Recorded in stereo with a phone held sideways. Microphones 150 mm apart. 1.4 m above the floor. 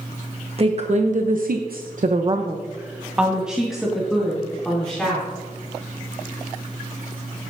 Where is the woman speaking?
45° right (ahead or behind), 1.3 m; by 5.2 s 5° left (ahead or behind), 3.5 m.